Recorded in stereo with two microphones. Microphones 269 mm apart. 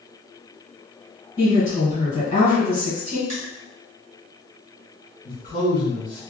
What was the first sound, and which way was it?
A woman speaking, 25° left (ahead or behind).